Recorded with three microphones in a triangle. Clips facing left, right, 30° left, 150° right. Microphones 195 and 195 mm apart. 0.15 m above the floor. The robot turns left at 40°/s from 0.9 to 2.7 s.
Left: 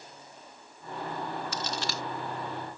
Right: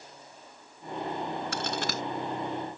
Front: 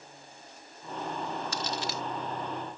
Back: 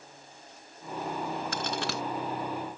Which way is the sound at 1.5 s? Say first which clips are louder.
Right 3 dB, back 2 dB; 115° right.